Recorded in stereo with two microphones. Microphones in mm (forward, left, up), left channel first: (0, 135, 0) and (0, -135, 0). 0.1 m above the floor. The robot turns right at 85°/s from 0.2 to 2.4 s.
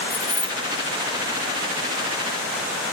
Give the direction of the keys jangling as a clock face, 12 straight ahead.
9 o'clock.